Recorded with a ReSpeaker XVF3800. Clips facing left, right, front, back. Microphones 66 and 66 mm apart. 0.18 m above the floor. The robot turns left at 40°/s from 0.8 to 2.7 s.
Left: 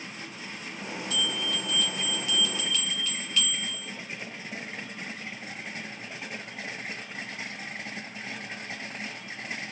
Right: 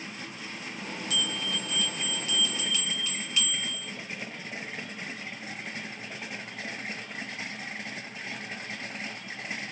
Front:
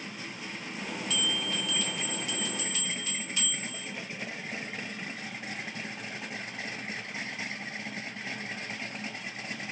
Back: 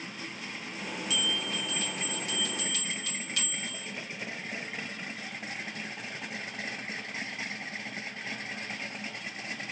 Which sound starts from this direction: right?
A bell, at 1.1 s.